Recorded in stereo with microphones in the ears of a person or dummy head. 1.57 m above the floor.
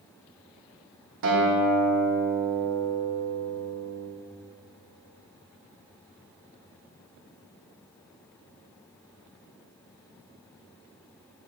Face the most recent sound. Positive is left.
turn(degrees=-65)  # may be behind; listen again after turning